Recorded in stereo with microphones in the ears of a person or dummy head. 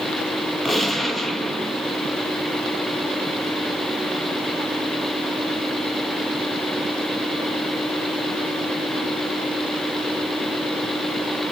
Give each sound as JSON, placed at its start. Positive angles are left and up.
{"t": 0.7, "sound": "a gunshot", "side_deg": 0, "distance_m": 1.1}